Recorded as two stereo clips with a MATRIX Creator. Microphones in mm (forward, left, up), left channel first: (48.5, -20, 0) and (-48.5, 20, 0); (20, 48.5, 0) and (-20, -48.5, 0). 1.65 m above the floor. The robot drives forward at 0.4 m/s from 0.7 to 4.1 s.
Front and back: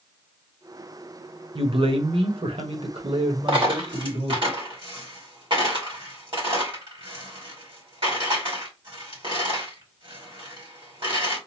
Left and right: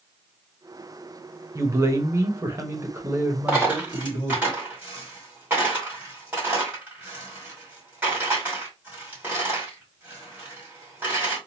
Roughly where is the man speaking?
Behind.